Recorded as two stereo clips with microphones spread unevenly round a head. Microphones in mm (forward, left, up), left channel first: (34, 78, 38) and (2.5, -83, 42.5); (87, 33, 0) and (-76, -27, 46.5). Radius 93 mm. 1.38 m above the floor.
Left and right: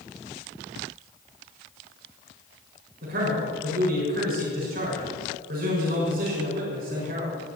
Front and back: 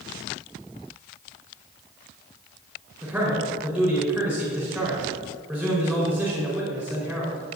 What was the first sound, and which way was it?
A man speaking, 75° right.